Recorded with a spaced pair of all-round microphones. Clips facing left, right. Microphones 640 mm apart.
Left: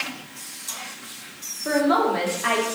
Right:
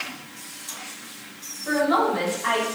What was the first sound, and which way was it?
A woman speaking, 80° left.